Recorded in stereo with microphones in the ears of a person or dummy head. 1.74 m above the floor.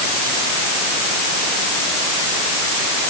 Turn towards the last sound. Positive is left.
No sound to turn to.